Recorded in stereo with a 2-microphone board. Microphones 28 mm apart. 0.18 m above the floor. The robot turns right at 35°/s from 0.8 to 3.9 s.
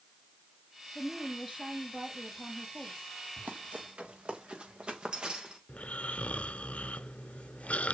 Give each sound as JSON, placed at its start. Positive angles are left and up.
{"t": 0.9, "sound": "a woman speaking", "azimuth_deg": -175, "distance_m": 6.5}
{"t": 3.4, "sound": "running footsteps", "side_deg": -75, "distance_m": 3.5}
{"t": 5.7, "sound": "snoring", "side_deg": 60, "distance_m": 0.7}